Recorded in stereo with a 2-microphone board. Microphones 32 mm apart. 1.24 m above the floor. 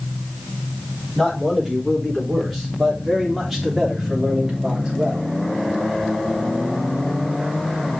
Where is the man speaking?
10° left (ahead or behind), 4.5 m; by 5.2 s 35° right (ahead or behind), 2.5 m.